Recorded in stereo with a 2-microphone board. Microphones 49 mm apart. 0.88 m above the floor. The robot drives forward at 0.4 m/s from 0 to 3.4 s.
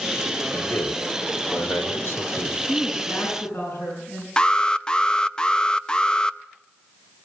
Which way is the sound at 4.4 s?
20° left (ahead or behind).